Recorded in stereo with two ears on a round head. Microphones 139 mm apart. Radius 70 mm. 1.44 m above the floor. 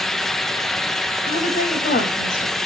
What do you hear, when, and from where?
1.3 s a woman speaking: 60° left (ahead or behind), 2.5 m